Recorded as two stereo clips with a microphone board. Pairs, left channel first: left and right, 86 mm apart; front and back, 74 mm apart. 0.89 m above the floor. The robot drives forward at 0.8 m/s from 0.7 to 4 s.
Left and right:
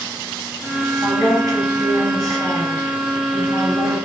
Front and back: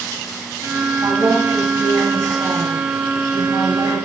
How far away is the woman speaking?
About 4.5 m.